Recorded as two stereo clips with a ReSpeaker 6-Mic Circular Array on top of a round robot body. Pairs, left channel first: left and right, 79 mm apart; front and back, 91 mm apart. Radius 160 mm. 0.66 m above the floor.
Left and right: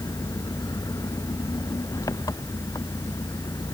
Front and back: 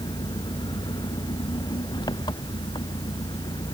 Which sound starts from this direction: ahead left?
An engine running, at 0.0 s.